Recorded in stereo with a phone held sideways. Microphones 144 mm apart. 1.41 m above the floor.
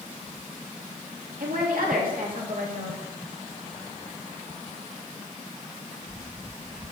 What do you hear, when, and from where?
1.4 s a woman speaking: 75° right (ahead or behind), 2.5 m